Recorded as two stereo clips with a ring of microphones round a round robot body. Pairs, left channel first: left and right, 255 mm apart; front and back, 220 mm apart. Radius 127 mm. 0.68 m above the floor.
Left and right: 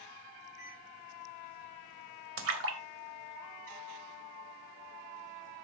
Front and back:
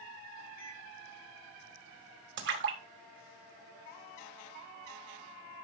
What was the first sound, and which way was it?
A microwave, 15° right.